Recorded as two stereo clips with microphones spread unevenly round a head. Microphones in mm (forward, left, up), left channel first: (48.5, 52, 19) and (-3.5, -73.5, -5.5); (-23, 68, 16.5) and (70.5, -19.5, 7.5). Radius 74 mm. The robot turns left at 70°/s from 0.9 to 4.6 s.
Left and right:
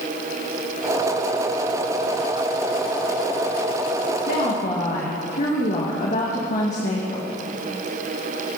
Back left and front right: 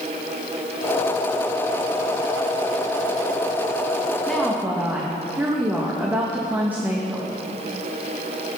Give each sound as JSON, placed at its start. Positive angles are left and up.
{"t": 4.3, "sound": "a woman speaking", "azimuth_deg": 60, "distance_m": 2.5}